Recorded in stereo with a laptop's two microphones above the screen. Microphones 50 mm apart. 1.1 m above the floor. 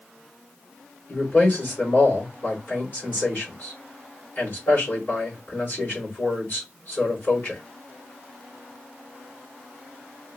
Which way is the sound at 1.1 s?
50° left (ahead or behind).